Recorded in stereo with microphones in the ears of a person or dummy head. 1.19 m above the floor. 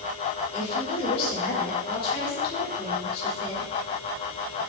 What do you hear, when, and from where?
0.5 s a woman speaking: 30° left (ahead or behind), 4 m